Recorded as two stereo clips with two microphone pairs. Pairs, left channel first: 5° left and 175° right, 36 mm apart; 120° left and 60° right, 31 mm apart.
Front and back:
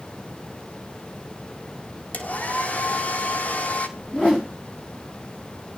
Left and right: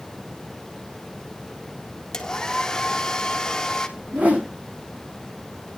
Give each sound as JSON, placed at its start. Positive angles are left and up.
{"t": 2.1, "sound": "a hair dryer", "azimuth_deg": 45, "distance_m": 1.5}
{"t": 4.0, "sound": "a whoosh", "azimuth_deg": -55, "distance_m": 5.5}